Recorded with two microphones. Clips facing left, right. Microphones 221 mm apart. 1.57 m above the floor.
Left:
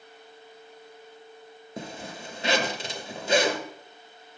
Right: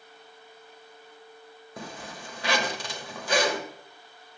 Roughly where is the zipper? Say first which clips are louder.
Left 3 dB; left.